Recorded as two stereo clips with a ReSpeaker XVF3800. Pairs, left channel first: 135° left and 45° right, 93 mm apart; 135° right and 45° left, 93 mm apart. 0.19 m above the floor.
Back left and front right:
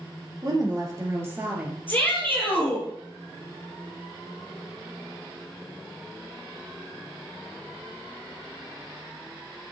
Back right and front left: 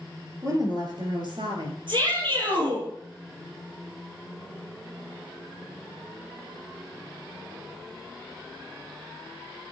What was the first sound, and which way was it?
A woman speaking, 5° right.